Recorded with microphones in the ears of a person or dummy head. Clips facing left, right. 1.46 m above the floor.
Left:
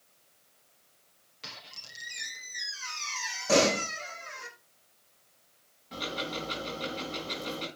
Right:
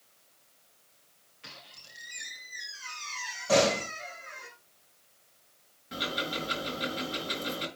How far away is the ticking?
About 5.5 m.